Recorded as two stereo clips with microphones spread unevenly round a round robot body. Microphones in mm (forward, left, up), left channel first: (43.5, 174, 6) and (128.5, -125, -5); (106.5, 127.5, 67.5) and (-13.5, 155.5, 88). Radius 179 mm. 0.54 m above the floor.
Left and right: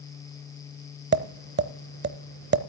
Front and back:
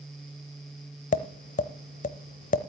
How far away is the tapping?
About 0.8 m.